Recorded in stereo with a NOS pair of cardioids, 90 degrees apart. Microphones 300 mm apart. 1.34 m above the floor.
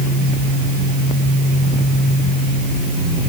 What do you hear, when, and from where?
Only background noise.